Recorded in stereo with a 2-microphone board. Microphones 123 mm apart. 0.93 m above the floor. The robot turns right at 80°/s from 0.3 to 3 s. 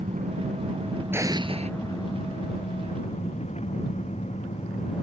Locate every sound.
0.0 s an engine running: 100° right; by 5.0 s 115° left
1.1 s an explosion: 165° right; by 1.7 s 115° right